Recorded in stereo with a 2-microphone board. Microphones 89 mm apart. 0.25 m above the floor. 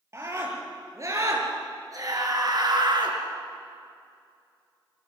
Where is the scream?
35° right (ahead or behind), 6 m; by 3.2 s 60° right (ahead or behind), 3.5 m.